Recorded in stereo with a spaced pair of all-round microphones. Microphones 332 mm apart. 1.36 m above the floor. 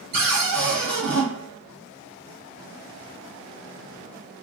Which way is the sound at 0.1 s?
85° right.